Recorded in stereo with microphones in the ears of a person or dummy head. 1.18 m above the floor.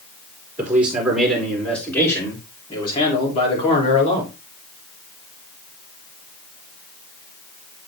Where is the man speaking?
10° right (ahead or behind), 3.5 m; by 4.3 s 40° left (ahead or behind), 4 m.